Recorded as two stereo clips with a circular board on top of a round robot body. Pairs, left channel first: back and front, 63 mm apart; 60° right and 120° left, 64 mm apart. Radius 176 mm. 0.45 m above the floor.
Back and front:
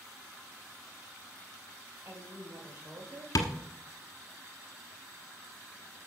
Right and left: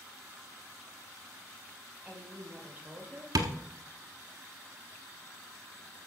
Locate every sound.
2.0 s a woman speaking: 45° left, 4.5 m; by 3.2 s 55° left, 3 m
3.4 s tapping: 145° left, 1.1 m